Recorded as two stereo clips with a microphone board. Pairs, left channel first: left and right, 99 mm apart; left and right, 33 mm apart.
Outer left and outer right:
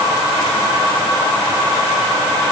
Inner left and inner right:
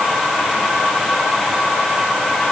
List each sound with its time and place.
Only background noise.